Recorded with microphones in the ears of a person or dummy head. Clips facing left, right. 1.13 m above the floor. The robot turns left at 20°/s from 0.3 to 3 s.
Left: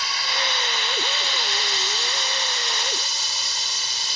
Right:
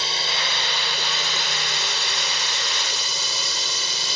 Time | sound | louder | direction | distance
0.0 | a drone | even | 25° right (ahead or behind) | ?